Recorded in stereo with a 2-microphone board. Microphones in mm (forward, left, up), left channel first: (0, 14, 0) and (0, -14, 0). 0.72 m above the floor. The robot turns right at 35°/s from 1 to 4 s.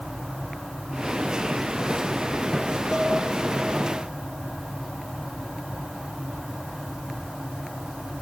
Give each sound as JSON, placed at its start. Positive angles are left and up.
{"t": 2.9, "sound": "dishes clattering", "side_deg": 35, "distance_m": 4.0}